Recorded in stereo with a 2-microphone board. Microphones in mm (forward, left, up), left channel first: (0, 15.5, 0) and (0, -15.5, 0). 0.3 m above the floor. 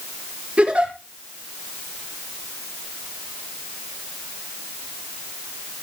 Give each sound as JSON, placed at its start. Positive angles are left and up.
{"t": 0.6, "sound": "a giggle", "side_deg": -45, "distance_m": 5.5}